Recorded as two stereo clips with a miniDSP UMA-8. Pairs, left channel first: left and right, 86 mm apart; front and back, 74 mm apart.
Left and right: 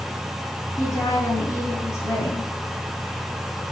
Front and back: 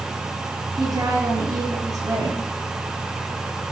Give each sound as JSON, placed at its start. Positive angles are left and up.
{"t": 0.8, "sound": "a woman speaking", "azimuth_deg": 145, "distance_m": 6.5}